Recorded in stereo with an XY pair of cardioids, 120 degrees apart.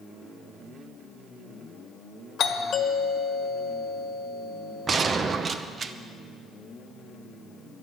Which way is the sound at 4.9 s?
40° right.